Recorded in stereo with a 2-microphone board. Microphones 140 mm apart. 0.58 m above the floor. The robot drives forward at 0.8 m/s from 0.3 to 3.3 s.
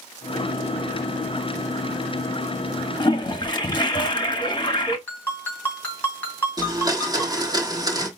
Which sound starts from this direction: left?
A toilet flushing, at 3.0 s.